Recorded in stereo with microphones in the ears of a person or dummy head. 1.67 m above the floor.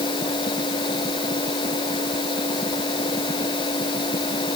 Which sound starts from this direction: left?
A machine running, at 0.0 s.